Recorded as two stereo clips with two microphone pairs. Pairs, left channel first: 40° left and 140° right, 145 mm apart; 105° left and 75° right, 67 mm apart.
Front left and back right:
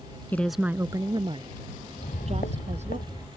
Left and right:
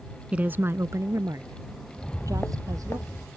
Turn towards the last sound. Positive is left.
turn(degrees=55)